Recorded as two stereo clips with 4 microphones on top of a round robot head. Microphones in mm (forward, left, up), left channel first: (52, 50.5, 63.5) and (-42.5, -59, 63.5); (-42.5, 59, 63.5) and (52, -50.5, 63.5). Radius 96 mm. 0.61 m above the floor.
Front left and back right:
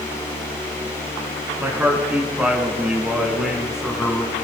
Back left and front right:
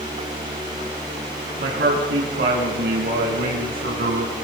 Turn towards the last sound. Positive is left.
turn(degrees=-40)